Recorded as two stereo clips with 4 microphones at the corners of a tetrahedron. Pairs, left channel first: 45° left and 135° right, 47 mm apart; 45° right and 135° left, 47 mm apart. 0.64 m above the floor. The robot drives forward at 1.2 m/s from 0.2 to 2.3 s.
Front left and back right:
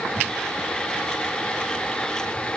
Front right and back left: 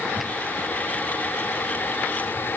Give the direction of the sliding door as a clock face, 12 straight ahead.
No sliding door in this recording.